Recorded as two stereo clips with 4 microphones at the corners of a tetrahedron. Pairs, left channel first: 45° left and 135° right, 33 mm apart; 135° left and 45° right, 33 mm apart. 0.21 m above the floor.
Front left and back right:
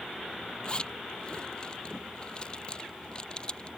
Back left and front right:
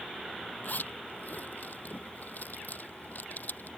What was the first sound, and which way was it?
A zipper, 110° left.